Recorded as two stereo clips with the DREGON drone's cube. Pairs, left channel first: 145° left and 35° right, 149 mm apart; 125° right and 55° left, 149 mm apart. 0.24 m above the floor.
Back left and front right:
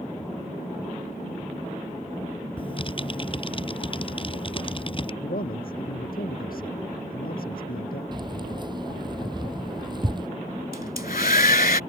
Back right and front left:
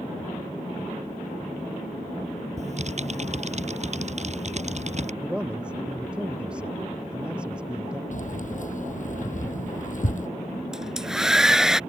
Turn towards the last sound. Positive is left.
turn(degrees=140)